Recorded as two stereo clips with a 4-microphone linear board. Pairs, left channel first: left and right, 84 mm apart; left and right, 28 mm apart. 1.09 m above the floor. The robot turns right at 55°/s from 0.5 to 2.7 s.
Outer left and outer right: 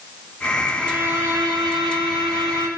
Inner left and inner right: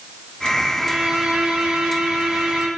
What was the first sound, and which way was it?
A violin, 165° right.